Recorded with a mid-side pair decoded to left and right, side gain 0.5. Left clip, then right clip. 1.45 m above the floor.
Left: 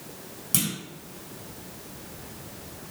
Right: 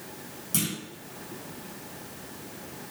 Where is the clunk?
35° left, 1.4 m.